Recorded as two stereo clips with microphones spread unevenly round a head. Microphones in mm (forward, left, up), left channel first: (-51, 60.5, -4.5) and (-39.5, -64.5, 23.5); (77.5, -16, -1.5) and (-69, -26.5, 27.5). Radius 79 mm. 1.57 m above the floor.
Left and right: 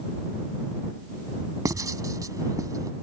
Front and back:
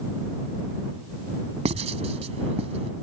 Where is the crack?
I don't hear a crack.